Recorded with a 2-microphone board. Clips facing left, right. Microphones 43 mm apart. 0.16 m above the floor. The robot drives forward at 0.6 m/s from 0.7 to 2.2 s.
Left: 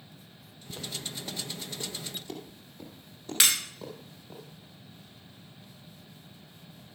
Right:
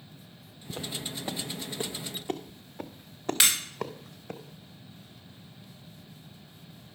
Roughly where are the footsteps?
Right.